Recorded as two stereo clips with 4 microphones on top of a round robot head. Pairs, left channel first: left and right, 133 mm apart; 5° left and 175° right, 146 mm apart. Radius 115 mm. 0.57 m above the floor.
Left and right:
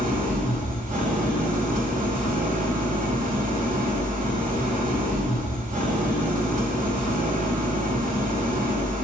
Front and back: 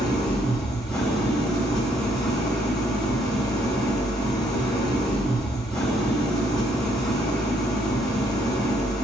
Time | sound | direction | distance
0.0 | an engine running | 65° right | 1.8 m